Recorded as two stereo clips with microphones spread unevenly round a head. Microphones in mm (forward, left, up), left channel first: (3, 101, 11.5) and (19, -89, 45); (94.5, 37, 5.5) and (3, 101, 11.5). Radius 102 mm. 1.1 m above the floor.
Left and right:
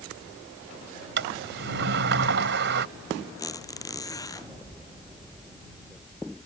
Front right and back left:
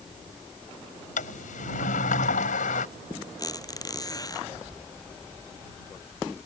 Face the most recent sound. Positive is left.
turn(degrees=20)